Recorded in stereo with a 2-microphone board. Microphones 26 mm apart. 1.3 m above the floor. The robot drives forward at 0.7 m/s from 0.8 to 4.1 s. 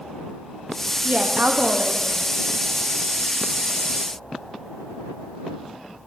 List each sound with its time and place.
1.0 s a woman speaking: 55° right (ahead or behind), 0.6 m; by 2.2 s 45° right (ahead or behind), 0.7 m